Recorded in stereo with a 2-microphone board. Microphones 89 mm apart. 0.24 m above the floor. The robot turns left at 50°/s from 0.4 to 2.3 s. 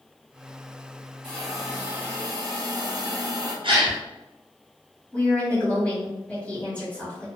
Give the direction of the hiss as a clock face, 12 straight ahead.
11 o'clock.